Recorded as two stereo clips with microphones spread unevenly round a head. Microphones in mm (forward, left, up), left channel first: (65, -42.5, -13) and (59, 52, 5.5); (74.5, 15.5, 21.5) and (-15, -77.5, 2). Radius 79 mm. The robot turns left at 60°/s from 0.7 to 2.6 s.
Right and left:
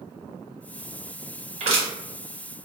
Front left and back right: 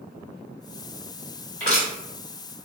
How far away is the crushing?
About 1.3 m.